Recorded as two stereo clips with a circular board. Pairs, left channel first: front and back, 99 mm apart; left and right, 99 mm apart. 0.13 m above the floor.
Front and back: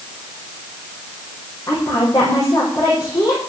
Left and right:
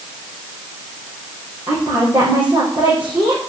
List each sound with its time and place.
1.7 s a woman speaking: 50° right, 5 m